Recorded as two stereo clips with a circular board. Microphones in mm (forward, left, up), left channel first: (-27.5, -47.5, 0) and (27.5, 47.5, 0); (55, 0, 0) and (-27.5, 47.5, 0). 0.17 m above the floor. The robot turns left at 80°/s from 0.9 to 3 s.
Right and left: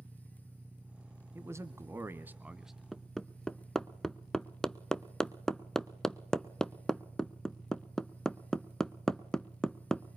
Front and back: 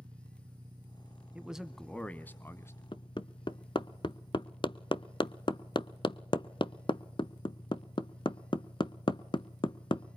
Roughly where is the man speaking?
Left.